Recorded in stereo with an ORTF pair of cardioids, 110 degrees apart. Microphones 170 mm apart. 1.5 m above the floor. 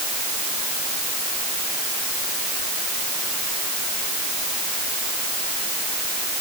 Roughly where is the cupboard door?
No cupboard door in this recording.